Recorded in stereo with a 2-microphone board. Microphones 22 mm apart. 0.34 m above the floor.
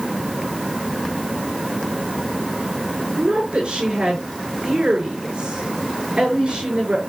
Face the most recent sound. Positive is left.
turn(degrees=-60)  # may be behind; listen again after turning